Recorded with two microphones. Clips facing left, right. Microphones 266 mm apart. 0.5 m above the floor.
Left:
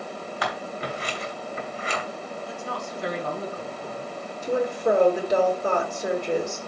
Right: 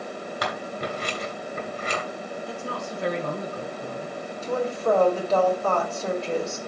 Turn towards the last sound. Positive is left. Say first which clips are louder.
# left 2 dB
turn(degrees=15)  # may be behind; listen again after turning